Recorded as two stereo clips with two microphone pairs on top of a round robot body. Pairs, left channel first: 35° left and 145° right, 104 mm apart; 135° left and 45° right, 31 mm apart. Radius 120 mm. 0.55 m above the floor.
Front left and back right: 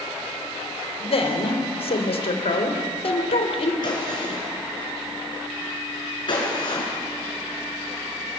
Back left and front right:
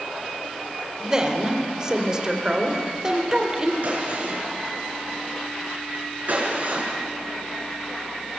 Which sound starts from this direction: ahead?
A gunshot, at 3.8 s.